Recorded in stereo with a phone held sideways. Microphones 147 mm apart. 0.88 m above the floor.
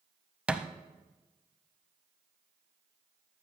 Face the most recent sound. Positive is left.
turn(degrees=-5)  # may be behind; listen again after turning